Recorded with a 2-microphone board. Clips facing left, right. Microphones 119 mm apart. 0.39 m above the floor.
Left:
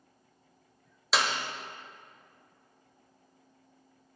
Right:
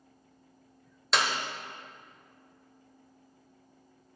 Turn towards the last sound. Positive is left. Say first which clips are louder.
# even
turn(degrees=0)  # may be behind; listen again after turning